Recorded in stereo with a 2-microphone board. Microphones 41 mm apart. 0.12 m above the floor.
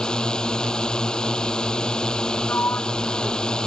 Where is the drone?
20° left (ahead or behind).